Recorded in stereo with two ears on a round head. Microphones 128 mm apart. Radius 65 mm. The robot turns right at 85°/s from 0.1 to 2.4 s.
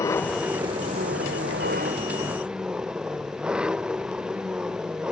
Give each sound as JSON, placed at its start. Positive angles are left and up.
{"t": 0.0, "sound": "an engine running", "azimuth_deg": 160}